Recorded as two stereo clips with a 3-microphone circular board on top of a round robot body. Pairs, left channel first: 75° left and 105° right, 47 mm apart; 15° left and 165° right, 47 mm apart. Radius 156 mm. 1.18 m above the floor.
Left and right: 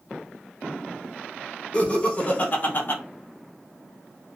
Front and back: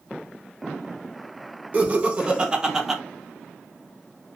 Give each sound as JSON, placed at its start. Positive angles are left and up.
{"t": 1.7, "sound": "laughter", "azimuth_deg": 140, "distance_m": 1.4}